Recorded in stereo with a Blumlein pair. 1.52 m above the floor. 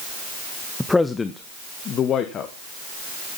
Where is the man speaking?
5° left, 0.6 m; by 2.5 s 30° left, 1.5 m.